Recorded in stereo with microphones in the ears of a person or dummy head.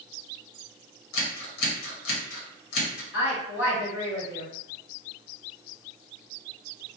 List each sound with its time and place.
1.1 s scissors: 75° left (ahead or behind), 1.1 m
3.1 s a woman speaking: 70° left (ahead or behind), 1.8 m